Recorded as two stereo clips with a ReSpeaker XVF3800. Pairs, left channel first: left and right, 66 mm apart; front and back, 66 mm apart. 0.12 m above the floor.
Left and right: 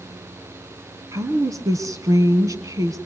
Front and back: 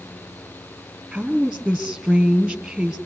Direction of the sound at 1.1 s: 95° right.